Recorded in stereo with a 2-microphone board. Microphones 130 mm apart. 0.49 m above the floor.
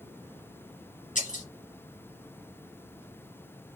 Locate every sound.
1.1 s breaking glass: 85° left, 1.8 m